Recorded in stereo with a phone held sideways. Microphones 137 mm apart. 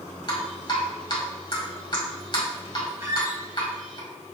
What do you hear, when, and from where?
0.3 s dripping: 35° left (ahead or behind), 1.4 m
3.0 s a squeak: 20° right (ahead or behind), 1.5 m